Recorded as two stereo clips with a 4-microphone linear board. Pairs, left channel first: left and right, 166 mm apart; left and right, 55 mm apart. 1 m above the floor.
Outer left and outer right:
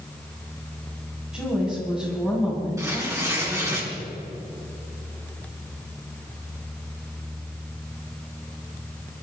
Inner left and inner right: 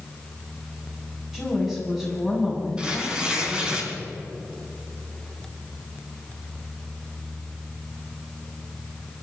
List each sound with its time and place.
1.3 s a woman speaking: 5° right (ahead or behind), 7 m
2.8 s tearing paper: 20° right (ahead or behind), 4 m